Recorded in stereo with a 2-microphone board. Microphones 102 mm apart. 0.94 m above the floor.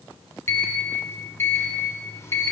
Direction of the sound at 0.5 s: 25° left (ahead or behind).